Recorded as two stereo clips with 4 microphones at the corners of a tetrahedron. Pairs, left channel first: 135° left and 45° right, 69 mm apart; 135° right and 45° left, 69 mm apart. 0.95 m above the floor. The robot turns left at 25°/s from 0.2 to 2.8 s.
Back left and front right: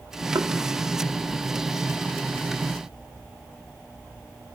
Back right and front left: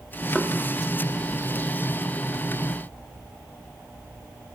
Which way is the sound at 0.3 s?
50° right.